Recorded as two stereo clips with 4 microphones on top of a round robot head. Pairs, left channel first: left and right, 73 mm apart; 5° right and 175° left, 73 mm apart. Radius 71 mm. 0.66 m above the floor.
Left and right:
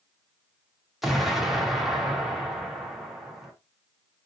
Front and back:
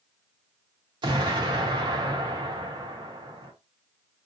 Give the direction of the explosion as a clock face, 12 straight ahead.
6 o'clock.